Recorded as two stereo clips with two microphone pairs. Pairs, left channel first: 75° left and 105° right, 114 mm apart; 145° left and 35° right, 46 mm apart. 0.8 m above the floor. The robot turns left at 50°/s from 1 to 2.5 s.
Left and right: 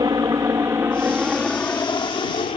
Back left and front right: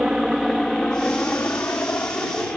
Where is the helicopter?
100° right; by 2.6 s 85° left.